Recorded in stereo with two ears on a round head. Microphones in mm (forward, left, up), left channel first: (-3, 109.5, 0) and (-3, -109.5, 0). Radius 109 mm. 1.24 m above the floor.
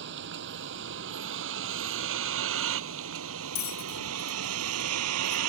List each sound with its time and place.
0.0 s a vehicle: 50° right (ahead or behind); by 5.5 s 70° right (ahead or behind)
3.5 s a bell: 40° left (ahead or behind)